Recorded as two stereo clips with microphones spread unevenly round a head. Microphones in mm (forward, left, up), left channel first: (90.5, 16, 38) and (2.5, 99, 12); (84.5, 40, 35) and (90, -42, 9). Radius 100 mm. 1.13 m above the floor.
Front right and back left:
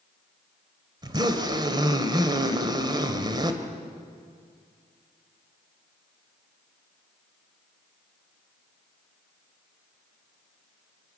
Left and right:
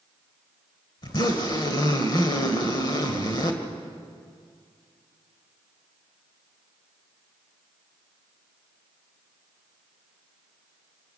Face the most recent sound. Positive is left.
turn(degrees=80)